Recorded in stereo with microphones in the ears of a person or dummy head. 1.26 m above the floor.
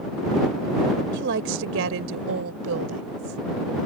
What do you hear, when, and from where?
1.1 s a woman speaking: 65° right (ahead or behind); by 3.4 s 90° right